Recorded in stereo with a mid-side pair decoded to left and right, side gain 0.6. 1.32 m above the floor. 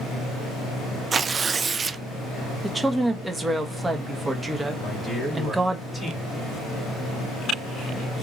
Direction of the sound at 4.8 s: 5° left.